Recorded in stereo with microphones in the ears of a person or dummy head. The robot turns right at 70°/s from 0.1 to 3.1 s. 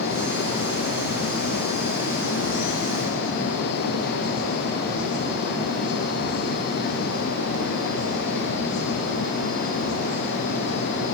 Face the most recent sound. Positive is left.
No sound to turn to.